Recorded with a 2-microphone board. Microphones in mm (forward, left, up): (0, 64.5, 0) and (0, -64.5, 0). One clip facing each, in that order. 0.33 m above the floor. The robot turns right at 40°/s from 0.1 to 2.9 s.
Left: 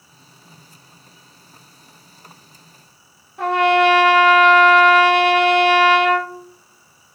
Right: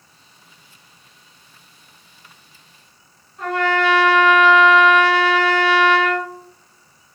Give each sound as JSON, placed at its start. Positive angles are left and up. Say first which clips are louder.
{"t": 3.4, "sound": "a trumpet", "louder": "left 5 dB", "side_deg": 65, "distance_m": 0.7}